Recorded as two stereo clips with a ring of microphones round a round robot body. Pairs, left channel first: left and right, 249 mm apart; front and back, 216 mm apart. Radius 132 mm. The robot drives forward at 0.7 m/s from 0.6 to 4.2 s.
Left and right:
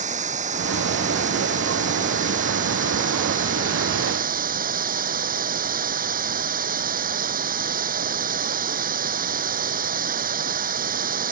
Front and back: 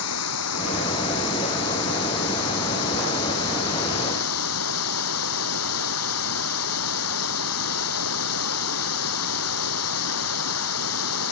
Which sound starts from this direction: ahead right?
Running water, at 0.0 s.